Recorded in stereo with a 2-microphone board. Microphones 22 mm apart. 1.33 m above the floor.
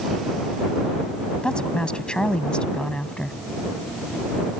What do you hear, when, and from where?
1.4 s a woman speaking: 40° left (ahead or behind); by 3.4 s 45° left (ahead or behind)